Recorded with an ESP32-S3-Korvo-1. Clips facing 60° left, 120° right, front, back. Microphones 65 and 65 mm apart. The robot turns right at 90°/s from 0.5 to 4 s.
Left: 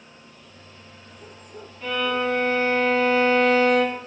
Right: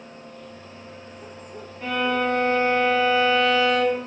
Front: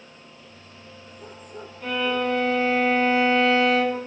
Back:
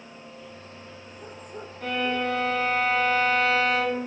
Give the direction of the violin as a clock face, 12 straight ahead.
6 o'clock.